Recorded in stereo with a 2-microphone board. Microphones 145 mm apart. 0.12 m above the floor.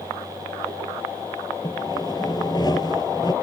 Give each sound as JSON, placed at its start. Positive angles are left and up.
{"t": 1.6, "sound": "sawing", "side_deg": 30}